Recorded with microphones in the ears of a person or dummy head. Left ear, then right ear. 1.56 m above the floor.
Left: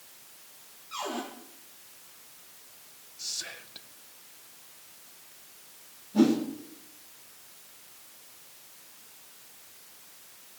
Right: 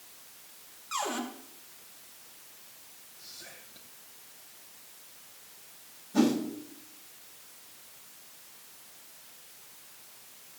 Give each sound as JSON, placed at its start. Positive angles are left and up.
{"t": 0.9, "sound": "a cupboard door", "side_deg": -55, "distance_m": 2.5}
{"t": 3.2, "sound": "whispering", "side_deg": 60, "distance_m": 1.3}
{"t": 6.1, "sound": "a whoosh", "side_deg": -60, "distance_m": 9.0}